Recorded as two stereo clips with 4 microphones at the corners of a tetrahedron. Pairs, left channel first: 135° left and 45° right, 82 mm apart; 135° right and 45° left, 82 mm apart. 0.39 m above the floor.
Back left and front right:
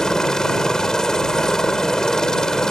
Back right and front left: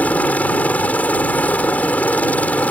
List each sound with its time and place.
0.0 s a helicopter: 155° right